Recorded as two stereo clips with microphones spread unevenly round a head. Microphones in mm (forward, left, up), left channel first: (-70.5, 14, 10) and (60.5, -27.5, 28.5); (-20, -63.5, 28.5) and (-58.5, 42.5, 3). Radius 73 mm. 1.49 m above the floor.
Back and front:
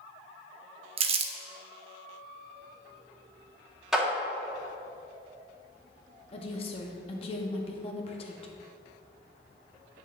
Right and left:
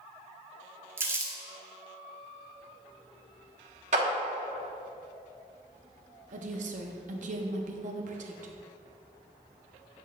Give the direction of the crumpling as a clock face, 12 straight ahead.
11 o'clock.